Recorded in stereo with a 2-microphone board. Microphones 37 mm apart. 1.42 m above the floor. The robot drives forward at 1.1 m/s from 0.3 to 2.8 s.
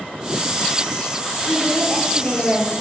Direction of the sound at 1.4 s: 80° left.